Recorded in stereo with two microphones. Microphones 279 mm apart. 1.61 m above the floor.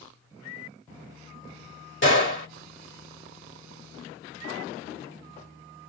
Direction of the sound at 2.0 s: 45° left (ahead or behind).